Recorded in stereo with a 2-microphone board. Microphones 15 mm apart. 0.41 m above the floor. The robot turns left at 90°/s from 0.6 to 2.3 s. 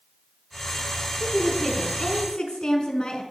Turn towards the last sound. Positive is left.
turn(degrees=110)